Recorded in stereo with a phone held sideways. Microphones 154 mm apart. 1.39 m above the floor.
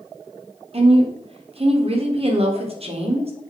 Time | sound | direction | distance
0.7 | a woman speaking | 40° right (ahead or behind) | 0.6 m